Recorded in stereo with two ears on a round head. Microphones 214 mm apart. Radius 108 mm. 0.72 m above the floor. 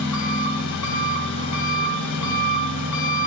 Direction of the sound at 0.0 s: 80° left.